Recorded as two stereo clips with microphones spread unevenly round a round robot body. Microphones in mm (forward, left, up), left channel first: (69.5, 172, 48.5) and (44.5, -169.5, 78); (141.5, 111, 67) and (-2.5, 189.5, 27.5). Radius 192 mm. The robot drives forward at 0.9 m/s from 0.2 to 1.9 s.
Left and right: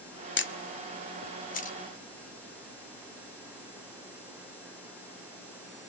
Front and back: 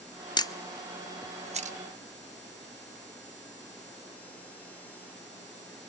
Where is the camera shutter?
45° left, 0.9 m; by 1.8 s 150° left, 1.1 m.